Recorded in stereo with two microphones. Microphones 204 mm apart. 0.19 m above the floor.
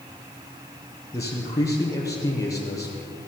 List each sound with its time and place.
1.1 s a man speaking: 15° left (ahead or behind), 5 m